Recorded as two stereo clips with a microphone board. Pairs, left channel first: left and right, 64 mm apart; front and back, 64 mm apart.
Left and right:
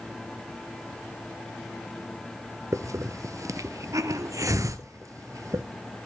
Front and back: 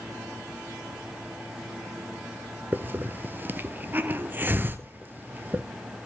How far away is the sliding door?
I don't hear a sliding door.